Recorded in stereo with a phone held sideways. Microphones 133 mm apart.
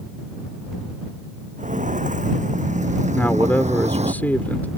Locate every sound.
1.6 s footsteps: 75° right (ahead or behind); by 4.1 s 55° right (ahead or behind)
3.1 s a man speaking: 10° left (ahead or behind)